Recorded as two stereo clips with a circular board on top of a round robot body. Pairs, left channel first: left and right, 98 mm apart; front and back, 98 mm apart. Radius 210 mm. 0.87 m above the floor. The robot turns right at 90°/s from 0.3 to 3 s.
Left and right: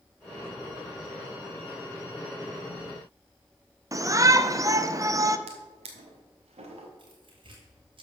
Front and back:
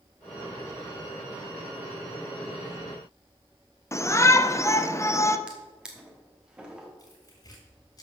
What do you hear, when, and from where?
3.9 s a shout: 50° right, 0.9 m
5.5 s a drawer: 100° right, 1.1 m
7.0 s tearing paper: 55° right, 1.8 m